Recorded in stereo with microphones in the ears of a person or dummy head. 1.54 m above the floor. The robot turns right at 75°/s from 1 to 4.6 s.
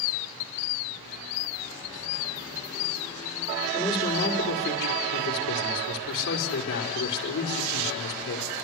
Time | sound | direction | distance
3.7 | a man speaking | straight ahead | 5 m